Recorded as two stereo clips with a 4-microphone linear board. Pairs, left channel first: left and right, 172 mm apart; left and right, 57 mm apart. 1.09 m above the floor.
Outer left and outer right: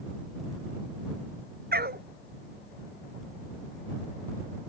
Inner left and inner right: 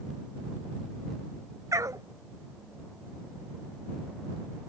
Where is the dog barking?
70° right (ahead or behind).